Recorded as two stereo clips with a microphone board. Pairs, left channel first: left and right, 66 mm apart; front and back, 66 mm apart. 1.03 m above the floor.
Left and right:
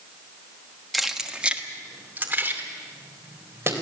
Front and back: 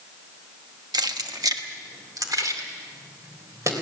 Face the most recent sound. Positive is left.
turn(degrees=-140)